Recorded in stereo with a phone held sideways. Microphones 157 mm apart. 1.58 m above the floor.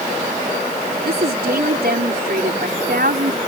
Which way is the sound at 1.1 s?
90° right.